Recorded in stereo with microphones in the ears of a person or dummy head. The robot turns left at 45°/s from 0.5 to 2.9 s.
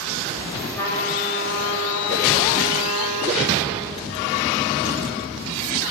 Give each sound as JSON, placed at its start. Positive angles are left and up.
{"t": 0.8, "sound": "a trumpet", "azimuth_deg": 165, "distance_m": 5.5}